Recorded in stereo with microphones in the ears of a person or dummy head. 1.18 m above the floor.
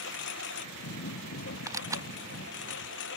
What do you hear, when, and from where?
0.0 s a lawn mower: 70° left (ahead or behind)
1.7 s tearing paper: 15° right (ahead or behind)